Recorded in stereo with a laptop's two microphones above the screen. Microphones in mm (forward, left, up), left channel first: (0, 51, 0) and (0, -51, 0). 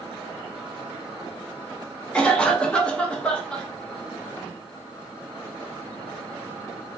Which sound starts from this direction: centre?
A cough, at 2.1 s.